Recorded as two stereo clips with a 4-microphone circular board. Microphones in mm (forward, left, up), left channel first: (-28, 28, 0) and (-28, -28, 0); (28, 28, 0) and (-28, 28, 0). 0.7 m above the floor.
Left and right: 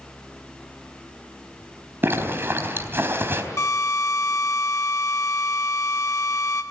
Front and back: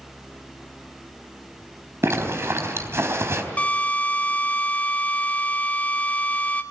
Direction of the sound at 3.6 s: 60° left.